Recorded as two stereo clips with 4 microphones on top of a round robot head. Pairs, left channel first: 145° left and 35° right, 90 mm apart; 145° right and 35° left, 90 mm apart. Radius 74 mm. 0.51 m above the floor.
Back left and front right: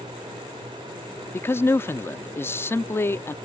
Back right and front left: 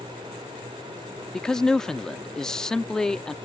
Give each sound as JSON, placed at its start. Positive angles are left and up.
{"t": 1.3, "sound": "a man speaking", "azimuth_deg": 140}